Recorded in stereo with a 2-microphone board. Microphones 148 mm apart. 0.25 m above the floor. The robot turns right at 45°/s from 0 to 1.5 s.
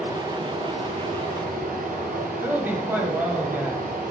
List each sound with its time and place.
0.0 s running water: 170° right, 1.2 m; by 4.1 s 100° right, 1.2 m
2.4 s a woman speaking: 15° right (ahead or behind), 1.0 m